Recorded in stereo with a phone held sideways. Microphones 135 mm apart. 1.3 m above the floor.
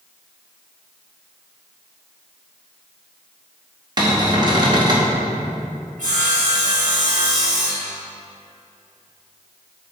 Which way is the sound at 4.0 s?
30° right (ahead or behind).